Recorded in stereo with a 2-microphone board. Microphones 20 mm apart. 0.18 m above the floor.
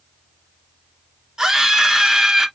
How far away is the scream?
About 2 m.